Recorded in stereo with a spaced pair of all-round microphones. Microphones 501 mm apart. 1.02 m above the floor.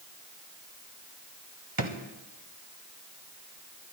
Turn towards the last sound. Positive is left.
turn(degrees=-45)  # may be behind; listen again after turning